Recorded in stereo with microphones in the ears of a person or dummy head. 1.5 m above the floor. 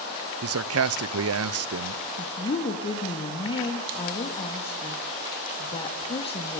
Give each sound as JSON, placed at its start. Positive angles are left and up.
{"t": 0.4, "sound": "a man speaking", "side_deg": -70, "distance_m": 0.8}
{"t": 2.2, "sound": "a woman speaking", "side_deg": 25, "distance_m": 2.0}